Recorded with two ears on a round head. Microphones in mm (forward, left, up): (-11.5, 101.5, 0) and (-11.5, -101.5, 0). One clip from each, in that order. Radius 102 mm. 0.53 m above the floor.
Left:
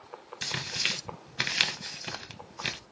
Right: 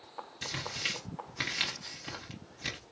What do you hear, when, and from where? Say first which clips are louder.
0.4 s tearing paper: left 5 dB; 30° left (ahead or behind), 0.8 m